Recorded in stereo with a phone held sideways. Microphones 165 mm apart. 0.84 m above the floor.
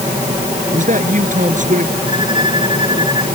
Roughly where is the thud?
No thud in this recording.